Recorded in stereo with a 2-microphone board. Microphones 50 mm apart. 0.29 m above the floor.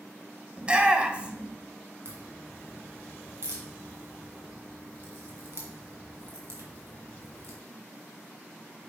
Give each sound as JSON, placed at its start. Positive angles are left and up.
{"t": 0.6, "sound": "a shout", "side_deg": -20, "distance_m": 0.9}
{"t": 2.0, "sound": "a crack", "side_deg": -60, "distance_m": 2.0}